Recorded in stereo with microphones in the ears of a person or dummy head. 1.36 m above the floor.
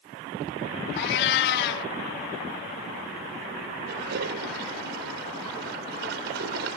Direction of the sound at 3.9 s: 65° right (ahead or behind).